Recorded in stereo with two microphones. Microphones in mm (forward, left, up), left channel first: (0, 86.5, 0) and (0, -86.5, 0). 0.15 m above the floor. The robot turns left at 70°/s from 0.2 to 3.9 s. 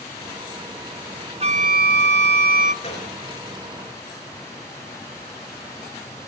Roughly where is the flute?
Ahead right.